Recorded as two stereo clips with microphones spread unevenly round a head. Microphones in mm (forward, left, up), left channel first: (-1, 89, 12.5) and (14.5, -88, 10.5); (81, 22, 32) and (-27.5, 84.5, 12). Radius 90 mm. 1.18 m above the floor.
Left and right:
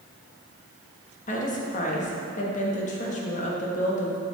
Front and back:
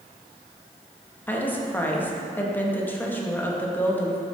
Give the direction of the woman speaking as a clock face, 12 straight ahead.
10 o'clock.